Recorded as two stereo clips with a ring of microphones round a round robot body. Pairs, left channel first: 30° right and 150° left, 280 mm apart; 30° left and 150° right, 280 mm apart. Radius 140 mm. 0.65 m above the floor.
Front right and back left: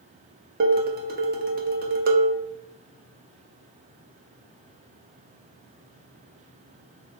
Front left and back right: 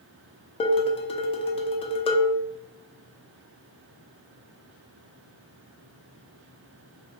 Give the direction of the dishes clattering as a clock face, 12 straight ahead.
9 o'clock.